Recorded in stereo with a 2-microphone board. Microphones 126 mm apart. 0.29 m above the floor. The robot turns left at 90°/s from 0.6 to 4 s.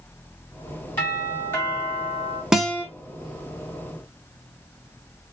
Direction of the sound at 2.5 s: 5° right (ahead or behind).